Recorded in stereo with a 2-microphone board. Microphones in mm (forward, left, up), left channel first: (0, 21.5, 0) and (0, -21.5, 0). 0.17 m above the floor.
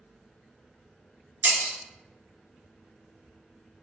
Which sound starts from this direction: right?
Breaking glass, at 1.4 s.